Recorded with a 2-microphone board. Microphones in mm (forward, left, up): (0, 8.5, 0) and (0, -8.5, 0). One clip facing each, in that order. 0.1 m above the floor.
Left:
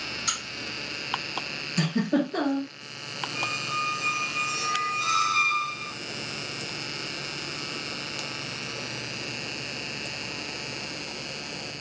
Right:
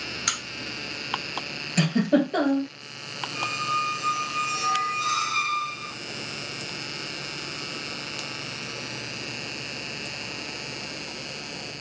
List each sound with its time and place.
0.3 s a crack: 35° right (ahead or behind), 1.2 m
1.8 s a giggle: 50° right (ahead or behind), 1.4 m
3.4 s a squeak: centre (ahead or behind), 0.5 m